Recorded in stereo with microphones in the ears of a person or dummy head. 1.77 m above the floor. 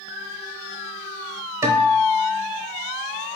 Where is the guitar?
15° right (ahead or behind), 0.8 m.